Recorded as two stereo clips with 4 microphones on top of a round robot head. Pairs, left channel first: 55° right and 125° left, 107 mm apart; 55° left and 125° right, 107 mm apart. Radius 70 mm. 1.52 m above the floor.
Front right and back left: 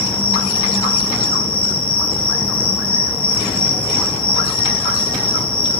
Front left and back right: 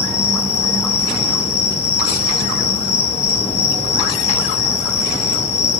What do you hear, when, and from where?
0.0 s an insect: 25° left, 8.5 m